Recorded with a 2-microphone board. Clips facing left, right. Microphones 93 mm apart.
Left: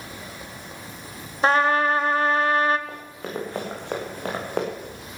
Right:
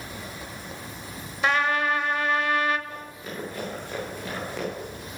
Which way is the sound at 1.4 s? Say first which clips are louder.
Left 4 dB; 35° left (ahead or behind).